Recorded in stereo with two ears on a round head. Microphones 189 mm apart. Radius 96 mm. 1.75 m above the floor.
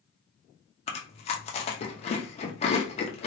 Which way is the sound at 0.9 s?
30° left (ahead or behind).